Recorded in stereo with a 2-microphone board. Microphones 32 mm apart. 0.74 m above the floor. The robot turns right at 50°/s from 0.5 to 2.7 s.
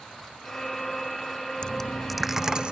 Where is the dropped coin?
155° left; by 2.7 s 150° right.